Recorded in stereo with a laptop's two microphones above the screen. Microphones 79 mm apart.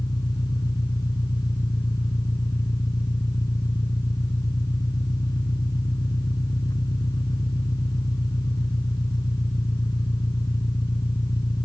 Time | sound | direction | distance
0.0 | an engine running | 60° left (ahead or behind) | ?